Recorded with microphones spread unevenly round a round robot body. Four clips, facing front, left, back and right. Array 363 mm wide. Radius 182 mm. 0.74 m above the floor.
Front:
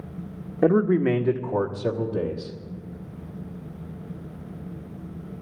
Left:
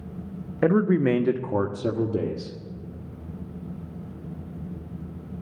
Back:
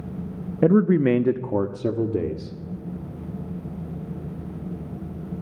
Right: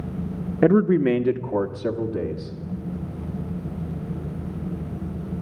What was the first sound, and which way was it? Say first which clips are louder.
A man speaking: right 3 dB, back 2 dB; 130° right.